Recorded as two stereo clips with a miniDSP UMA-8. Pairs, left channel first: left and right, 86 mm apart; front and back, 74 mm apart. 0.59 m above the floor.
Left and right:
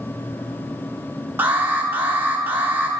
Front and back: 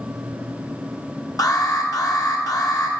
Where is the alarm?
25° right, 0.9 m.